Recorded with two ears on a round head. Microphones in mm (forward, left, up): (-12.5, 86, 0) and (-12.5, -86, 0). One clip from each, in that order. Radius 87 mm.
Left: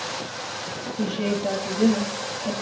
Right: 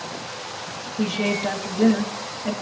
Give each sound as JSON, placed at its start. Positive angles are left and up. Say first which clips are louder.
{"t": 1.0, "sound": "a woman speaking", "louder": "right 3 dB", "side_deg": -45, "distance_m": 1.5}